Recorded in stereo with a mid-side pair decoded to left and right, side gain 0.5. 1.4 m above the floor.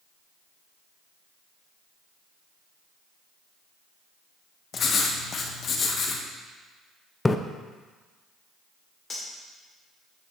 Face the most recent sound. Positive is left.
turn(degrees=30)